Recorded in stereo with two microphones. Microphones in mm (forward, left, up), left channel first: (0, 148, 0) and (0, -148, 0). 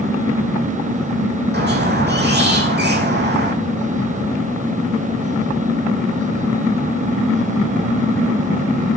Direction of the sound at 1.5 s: 35° right (ahead or behind).